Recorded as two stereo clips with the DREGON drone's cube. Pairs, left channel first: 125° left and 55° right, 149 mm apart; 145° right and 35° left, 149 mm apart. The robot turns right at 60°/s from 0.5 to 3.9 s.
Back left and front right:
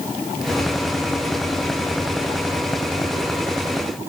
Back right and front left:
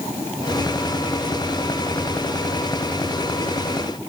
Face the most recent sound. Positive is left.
No sound to turn to.